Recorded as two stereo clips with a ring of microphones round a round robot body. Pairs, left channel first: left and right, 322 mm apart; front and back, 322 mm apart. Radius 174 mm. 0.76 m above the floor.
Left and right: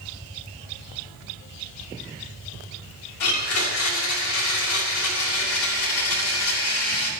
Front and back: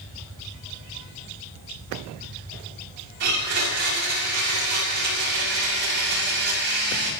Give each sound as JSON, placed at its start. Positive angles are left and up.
{"t": 3.2, "sound": "a blender", "azimuth_deg": 120, "distance_m": 6.0}